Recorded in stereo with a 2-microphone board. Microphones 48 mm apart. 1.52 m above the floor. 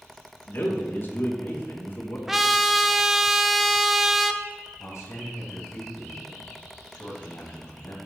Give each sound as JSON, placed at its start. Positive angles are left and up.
{"t": 0.5, "sound": "a man speaking", "side_deg": 45, "distance_m": 2.0}
{"t": 2.3, "sound": "a trumpet", "side_deg": -5, "distance_m": 0.6}
{"t": 4.8, "sound": "a man speaking", "side_deg": 80, "distance_m": 2.5}